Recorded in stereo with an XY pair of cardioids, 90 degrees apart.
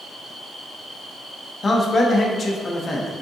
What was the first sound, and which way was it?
A man speaking, 40° left.